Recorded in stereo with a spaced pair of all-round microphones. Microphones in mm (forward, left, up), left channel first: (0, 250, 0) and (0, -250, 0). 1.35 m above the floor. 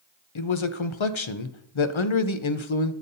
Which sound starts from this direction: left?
A man speaking, at 0.3 s.